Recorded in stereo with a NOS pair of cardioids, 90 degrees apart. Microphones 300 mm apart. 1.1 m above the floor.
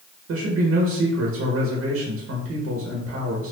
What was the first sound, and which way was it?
A man speaking, 60° right.